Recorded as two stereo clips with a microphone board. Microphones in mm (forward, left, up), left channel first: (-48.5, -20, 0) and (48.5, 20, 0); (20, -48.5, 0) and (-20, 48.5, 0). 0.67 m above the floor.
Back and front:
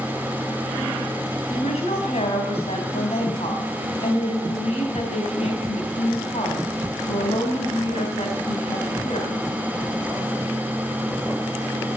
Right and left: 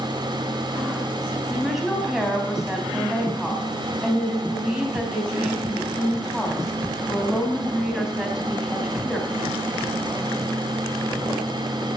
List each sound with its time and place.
1.5 s a woman speaking: 165° right, 4 m